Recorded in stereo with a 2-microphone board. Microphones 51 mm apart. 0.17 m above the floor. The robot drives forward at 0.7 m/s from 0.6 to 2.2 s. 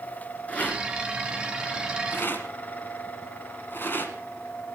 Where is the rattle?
30° left (ahead or behind), 2.0 m; by 4.1 s 40° left (ahead or behind), 1.4 m.